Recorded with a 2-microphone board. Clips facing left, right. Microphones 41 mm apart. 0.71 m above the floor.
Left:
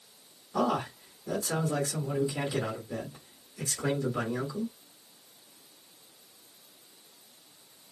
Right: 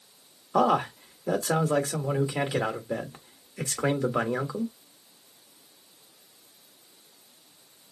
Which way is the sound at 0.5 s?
50° right (ahead or behind).